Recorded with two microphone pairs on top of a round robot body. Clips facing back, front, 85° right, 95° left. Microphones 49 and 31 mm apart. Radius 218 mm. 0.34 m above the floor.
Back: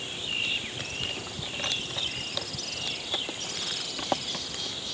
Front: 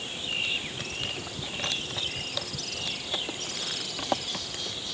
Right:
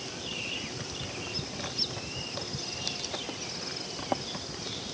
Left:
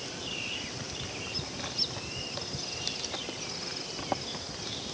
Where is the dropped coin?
No dropped coin in this recording.